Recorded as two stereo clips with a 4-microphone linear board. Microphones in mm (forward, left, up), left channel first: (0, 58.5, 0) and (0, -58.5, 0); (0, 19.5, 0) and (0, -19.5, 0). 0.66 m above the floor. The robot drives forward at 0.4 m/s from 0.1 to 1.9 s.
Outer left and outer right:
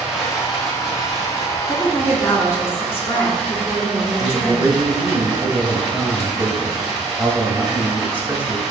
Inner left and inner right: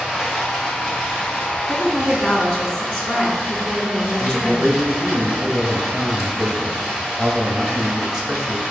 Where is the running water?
5° right (ahead or behind), 1.3 m.